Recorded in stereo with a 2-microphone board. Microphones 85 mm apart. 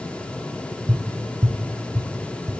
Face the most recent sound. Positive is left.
turn(degrees=-50)  # may be behind; listen again after turning